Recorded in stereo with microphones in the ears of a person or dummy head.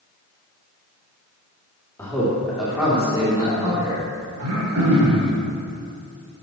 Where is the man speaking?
10° left (ahead or behind), 2 m; by 4.0 s 15° right (ahead or behind), 4 m.